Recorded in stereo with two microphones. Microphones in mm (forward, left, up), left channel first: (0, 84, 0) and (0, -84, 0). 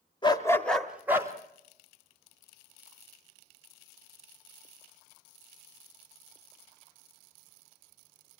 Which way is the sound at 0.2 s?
25° left (ahead or behind).